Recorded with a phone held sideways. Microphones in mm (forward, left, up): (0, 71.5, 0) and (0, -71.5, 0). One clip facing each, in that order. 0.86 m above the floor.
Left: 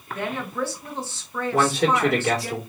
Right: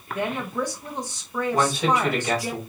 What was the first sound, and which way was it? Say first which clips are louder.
A woman speaking: right 1 dB; 15° right (ahead or behind).